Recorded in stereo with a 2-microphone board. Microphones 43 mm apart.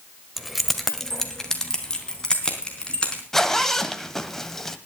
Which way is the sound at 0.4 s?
Centre (ahead or behind).